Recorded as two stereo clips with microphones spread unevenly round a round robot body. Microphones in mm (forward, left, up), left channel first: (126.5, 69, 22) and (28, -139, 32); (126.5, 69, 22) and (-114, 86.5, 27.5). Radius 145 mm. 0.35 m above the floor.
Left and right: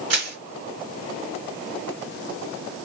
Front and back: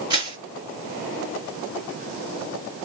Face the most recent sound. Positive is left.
turn(degrees=-110)